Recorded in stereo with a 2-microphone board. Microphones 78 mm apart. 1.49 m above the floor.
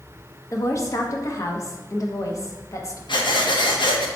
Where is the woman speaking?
40° left (ahead or behind), 0.8 m.